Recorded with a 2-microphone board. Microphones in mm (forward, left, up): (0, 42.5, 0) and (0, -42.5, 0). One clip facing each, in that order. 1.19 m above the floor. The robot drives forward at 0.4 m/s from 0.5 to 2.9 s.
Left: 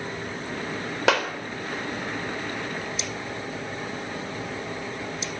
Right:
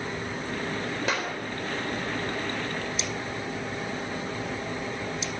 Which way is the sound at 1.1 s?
85° left.